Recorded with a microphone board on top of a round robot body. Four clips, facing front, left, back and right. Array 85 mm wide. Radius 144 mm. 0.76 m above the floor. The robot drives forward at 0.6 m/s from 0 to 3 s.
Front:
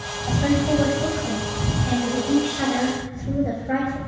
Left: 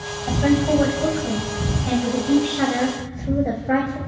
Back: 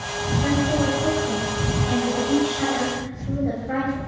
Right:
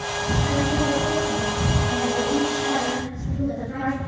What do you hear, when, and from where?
0.3 s a woman speaking: 65° left, 6 m; by 4.0 s 85° left, 5.5 m